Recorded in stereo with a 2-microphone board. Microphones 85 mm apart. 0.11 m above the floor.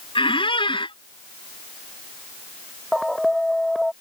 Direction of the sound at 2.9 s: Centre (ahead or behind).